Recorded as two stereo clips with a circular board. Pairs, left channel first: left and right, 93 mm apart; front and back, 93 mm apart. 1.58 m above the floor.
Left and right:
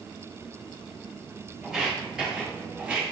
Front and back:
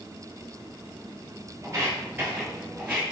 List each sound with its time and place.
1.6 s footsteps: 175° right, 1.8 m; by 3.0 s 125° right, 1.6 m